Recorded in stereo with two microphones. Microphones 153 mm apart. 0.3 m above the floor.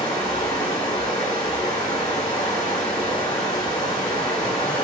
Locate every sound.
0.0 s running water: 25° left (ahead or behind), 1.7 m